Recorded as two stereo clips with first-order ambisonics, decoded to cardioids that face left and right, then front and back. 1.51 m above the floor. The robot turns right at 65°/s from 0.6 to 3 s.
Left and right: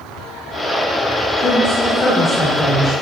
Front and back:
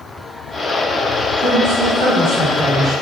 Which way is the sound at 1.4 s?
140° left.